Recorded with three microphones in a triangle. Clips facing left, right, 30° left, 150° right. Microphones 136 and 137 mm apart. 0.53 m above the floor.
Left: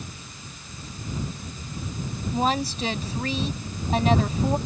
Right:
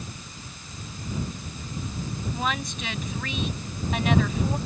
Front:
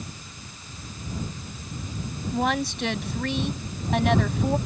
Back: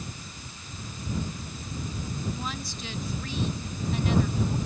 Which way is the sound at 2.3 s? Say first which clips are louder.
Left 7 dB, front 11 dB; 35° left.